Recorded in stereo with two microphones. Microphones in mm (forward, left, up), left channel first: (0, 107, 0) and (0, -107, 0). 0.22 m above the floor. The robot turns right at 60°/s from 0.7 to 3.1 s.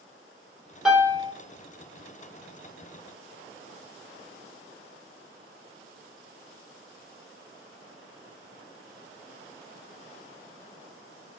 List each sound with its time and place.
0.8 s a piano: centre (ahead or behind), 0.8 m; by 1.3 s 30° right (ahead or behind), 0.8 m